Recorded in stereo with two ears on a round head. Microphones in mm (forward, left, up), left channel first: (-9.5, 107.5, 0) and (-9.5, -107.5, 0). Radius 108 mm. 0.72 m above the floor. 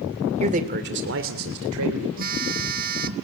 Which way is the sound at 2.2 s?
35° right (ahead or behind).